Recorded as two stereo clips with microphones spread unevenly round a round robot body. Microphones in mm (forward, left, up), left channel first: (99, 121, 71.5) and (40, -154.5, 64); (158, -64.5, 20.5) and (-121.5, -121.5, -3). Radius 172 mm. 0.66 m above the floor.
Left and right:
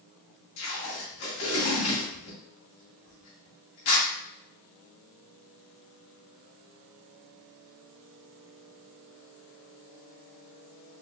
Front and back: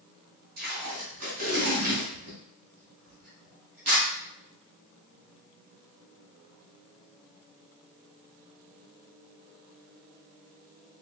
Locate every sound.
0.6 s tape being pulled: 125° left, 2 m